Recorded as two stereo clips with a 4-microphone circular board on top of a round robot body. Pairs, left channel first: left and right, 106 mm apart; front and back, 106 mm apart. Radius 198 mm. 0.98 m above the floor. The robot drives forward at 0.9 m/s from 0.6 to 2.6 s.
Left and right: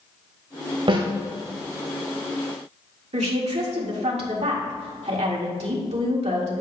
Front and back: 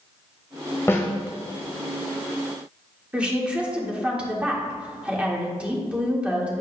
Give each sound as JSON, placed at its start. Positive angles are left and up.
{"t": 0.9, "sound": "a snare drum", "azimuth_deg": -65, "distance_m": 1.9}
{"t": 3.1, "sound": "a woman speaking", "azimuth_deg": -100, "distance_m": 1.9}